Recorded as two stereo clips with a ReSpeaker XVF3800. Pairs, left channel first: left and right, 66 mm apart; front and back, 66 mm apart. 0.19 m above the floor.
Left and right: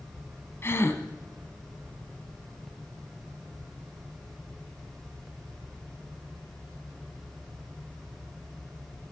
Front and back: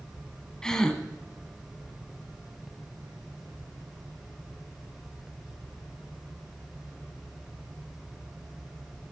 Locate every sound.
0.6 s a gasp: 75° left, 1.0 m